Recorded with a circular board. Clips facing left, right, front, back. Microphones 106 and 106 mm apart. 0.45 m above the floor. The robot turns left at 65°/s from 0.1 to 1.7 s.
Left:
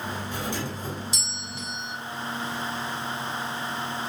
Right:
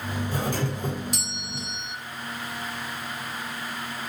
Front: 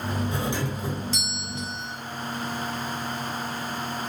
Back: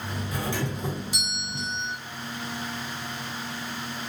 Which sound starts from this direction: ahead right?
A doorbell, at 0.3 s.